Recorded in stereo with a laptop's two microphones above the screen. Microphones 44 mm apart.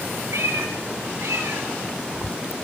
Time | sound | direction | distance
0.3 | a cat meowing | 85° right | 5.5 m